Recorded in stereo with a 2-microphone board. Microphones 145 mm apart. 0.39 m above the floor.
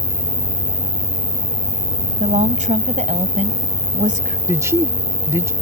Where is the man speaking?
20° right (ahead or behind).